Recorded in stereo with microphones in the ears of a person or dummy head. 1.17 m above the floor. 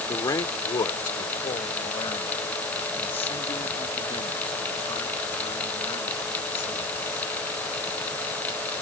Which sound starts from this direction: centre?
A man speaking, at 0.1 s.